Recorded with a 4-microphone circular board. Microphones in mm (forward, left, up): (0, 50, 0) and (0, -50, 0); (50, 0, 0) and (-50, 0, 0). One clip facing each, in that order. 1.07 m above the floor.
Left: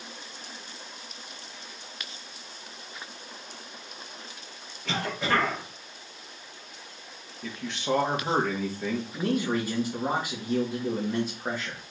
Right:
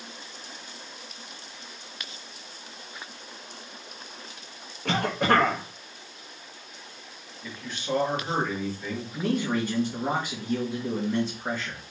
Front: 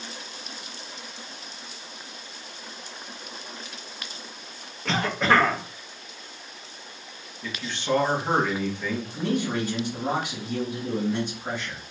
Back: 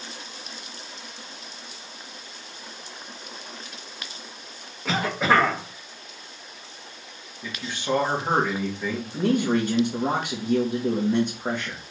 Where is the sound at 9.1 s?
165° left, 1.1 m.